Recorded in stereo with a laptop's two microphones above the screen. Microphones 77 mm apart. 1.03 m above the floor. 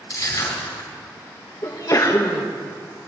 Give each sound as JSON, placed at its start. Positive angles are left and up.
{"t": 0.1, "sound": "crushing", "side_deg": 55, "distance_m": 3.5}
{"t": 1.6, "sound": "a sneeze", "side_deg": 45, "distance_m": 1.2}